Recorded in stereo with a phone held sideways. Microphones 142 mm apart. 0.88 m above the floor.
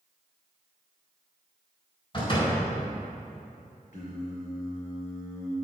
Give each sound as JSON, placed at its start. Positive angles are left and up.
{"t": 2.1, "sound": "a door slam", "side_deg": 40, "distance_m": 3.5}
{"t": 3.9, "sound": "singing", "side_deg": 70, "distance_m": 3.5}